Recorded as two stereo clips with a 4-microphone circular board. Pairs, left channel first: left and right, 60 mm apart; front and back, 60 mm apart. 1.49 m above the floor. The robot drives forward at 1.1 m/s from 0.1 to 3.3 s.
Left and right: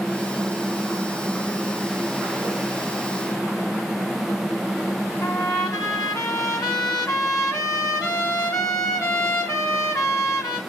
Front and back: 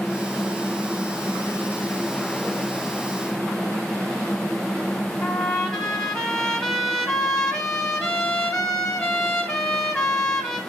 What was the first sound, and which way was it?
A trumpet, 80° left.